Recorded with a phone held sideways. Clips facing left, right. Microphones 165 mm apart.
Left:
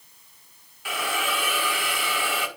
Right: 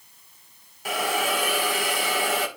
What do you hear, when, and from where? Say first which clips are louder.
0.8 s a hiss: right 4 dB; 45° right (ahead or behind), 1.3 m